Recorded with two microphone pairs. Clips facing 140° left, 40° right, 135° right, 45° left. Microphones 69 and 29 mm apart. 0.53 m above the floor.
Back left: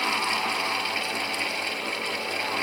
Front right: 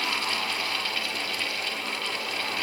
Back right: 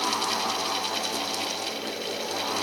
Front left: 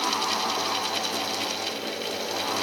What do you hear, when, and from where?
Only background noise.